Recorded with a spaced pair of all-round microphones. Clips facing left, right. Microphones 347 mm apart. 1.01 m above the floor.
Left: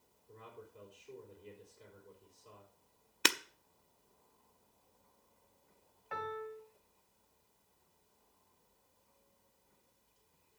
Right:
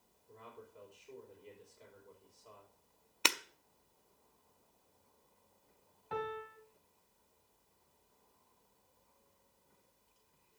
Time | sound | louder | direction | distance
0.3 | a man speaking | left 1 dB | 20° left (ahead or behind) | 5 m
3.2 | breaking glass | left 3 dB | 25° left (ahead or behind) | 0.6 m
6.1 | a piano | right 2 dB | 45° right (ahead or behind) | 1.9 m